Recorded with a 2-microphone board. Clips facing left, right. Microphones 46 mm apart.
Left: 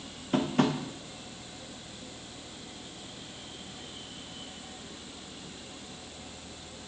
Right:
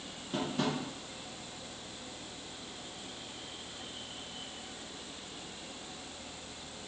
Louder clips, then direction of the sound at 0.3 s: Left 7 dB; 55° left (ahead or behind).